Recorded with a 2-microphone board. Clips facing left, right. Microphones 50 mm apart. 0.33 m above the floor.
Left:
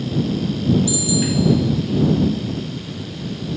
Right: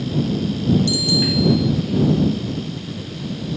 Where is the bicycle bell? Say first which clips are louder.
Even; 65° right (ahead or behind).